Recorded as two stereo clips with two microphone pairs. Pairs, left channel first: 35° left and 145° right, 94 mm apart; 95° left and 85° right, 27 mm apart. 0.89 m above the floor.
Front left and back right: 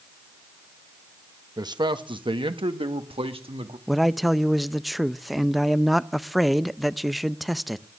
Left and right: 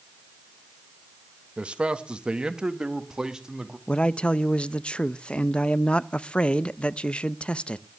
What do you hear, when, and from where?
1.6 s a man speaking: 115° right, 1.0 m; by 3.8 s 155° right, 1.9 m
3.9 s a man speaking: 125° left, 0.5 m